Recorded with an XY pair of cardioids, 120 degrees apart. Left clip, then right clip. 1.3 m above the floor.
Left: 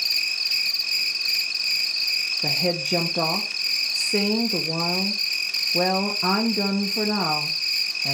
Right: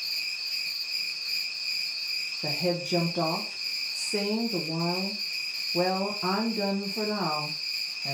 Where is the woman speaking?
30° left, 1.1 m.